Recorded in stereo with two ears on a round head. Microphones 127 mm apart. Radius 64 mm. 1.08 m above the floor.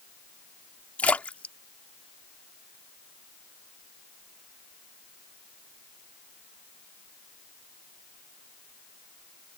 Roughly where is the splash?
Centre.